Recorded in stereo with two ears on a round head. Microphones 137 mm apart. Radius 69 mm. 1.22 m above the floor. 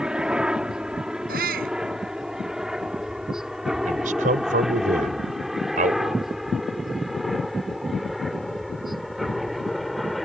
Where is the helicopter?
5° right (ahead or behind); by 10.3 s centre (ahead or behind).